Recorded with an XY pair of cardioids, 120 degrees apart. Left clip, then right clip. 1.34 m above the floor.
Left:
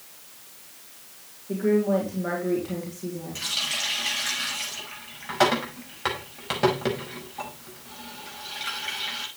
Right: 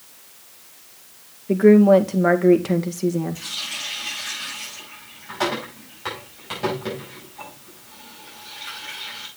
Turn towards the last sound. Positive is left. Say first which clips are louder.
# left 2 dB
turn(degrees=40)